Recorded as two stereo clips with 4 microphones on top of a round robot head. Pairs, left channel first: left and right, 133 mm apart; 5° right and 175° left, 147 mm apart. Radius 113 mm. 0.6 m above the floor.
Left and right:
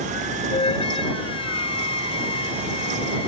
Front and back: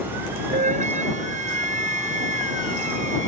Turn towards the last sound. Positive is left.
turn(degrees=140)